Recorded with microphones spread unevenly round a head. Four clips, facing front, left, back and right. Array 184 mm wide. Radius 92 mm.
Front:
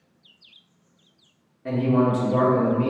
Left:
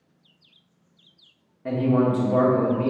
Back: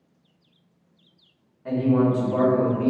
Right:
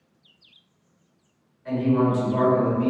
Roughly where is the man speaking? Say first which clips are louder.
Even, even; ahead left.